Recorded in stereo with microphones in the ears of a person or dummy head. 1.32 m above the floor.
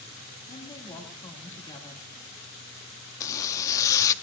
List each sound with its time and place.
0.5 s a woman speaking: 30° left (ahead or behind), 2 m
3.2 s a zipper: 15° left (ahead or behind), 0.6 m